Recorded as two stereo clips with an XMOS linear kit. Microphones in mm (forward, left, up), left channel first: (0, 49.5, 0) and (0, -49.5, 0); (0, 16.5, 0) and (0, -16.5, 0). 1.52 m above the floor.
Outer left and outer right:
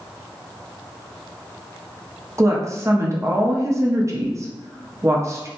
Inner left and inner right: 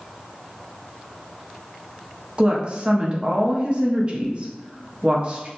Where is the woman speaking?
30° right (ahead or behind), 0.6 m.